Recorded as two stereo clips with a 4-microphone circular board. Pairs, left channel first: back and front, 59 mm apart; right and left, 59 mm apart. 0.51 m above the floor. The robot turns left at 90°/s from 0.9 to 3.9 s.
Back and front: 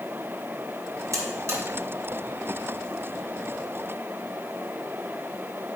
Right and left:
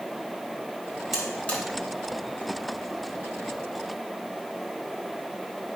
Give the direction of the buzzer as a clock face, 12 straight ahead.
12 o'clock.